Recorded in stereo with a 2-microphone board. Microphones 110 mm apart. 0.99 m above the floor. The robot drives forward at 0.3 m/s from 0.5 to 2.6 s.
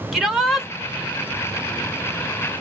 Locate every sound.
0.1 s a shout: 5° right (ahead or behind), 1.0 m